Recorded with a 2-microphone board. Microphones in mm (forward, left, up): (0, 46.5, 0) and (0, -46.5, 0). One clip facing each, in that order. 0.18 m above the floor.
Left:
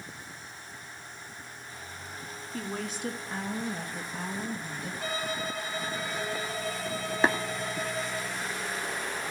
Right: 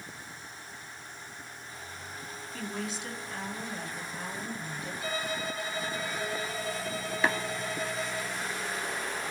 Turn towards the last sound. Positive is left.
turn(degrees=35)  # may be behind; listen again after turning